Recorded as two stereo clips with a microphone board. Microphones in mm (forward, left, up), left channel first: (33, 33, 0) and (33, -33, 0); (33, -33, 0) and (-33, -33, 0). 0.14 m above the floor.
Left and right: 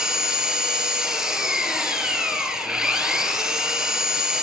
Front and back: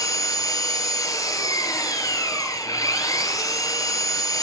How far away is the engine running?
About 2.5 m.